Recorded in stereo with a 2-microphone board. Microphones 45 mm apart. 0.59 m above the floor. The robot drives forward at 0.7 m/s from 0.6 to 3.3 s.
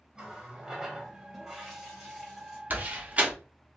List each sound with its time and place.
0.1 s a running tap: 15° right (ahead or behind), 1.0 m; by 2.6 s 5° right (ahead or behind), 2.5 m
2.7 s a door slam: 40° right (ahead or behind), 0.7 m; by 3.3 s 30° right (ahead or behind), 0.9 m